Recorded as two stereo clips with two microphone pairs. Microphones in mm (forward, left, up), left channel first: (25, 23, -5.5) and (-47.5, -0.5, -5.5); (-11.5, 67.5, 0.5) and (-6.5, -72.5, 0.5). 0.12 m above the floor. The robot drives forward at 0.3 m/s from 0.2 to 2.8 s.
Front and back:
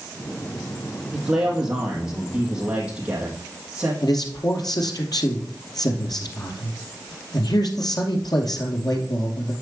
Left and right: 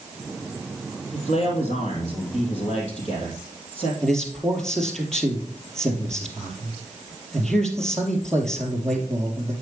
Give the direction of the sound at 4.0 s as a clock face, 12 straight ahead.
12 o'clock.